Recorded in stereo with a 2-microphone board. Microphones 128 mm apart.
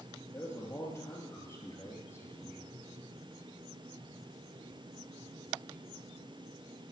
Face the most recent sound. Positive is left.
turn(degrees=20)  # may be behind; listen again after turning